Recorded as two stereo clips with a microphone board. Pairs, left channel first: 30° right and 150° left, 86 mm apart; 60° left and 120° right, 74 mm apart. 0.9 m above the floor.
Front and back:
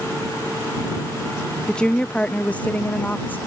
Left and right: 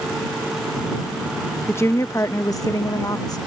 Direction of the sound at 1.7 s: 45° left.